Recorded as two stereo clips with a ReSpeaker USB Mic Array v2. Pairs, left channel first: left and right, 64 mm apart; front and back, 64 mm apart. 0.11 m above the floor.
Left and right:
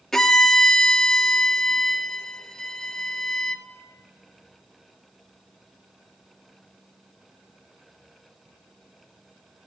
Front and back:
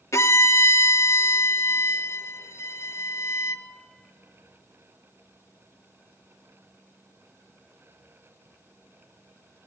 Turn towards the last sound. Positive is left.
turn(degrees=10)